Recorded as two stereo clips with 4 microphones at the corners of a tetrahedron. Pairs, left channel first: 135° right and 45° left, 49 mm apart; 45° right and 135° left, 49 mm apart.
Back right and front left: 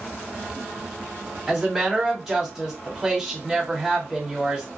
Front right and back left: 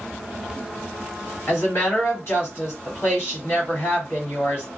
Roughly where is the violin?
No violin in this recording.